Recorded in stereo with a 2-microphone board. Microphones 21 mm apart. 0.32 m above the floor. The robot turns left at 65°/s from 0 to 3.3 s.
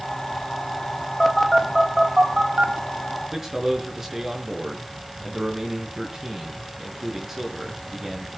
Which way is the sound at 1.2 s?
25° left (ahead or behind).